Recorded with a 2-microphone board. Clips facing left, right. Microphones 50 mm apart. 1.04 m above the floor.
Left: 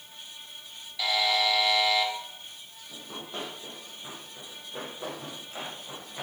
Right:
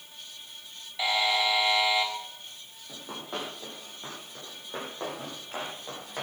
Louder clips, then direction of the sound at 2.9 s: Right 2 dB; 70° right (ahead or behind).